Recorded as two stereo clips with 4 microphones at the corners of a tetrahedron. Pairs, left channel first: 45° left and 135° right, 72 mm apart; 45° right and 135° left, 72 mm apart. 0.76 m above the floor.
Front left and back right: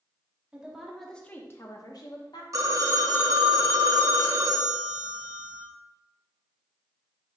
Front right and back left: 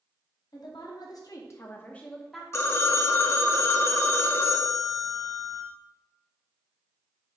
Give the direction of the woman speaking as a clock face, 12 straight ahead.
2 o'clock.